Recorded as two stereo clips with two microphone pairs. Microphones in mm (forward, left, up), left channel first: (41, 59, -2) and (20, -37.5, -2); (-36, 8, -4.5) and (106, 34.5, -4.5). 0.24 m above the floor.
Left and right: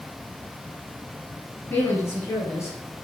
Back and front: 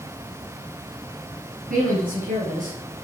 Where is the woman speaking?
15° left, 4 m; by 2.8 s 20° left, 2.5 m.